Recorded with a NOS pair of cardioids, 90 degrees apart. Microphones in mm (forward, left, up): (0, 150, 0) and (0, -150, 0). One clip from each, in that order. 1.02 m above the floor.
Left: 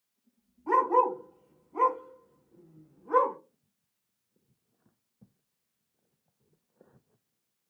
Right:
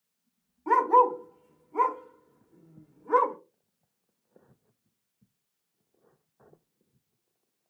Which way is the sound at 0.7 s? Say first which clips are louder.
Right 3 dB; 55° right.